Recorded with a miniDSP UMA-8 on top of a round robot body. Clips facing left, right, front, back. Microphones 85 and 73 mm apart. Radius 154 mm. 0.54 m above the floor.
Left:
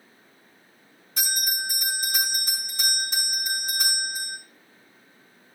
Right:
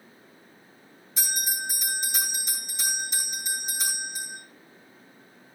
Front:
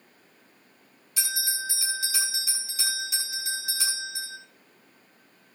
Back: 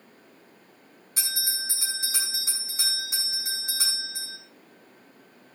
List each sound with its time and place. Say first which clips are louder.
1.2 s a bell: left 2 dB, front 3 dB; 125° left, 7 m